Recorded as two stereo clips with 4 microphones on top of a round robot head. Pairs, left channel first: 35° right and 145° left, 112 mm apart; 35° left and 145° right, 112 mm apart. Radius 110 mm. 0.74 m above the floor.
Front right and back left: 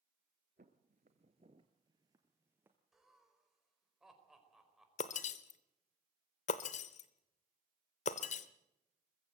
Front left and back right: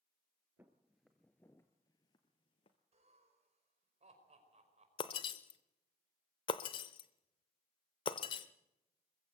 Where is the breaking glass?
15° right, 0.7 m.